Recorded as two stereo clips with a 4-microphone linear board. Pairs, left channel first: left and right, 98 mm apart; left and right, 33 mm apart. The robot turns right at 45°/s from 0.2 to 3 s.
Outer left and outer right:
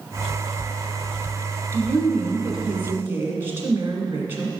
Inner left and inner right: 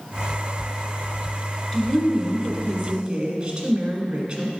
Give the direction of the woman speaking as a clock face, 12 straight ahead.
7 o'clock.